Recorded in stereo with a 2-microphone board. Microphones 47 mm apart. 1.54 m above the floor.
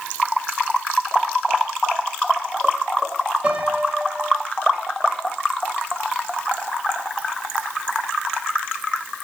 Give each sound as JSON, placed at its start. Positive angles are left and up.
{"t": 3.4, "sound": "a piano", "side_deg": -25, "distance_m": 1.7}